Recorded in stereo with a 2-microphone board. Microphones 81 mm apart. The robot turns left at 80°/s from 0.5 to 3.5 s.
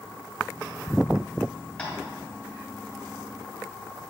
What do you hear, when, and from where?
1.8 s tapping: 15° left (ahead or behind), 2 m; by 1.9 s 25° left (ahead or behind), 2 m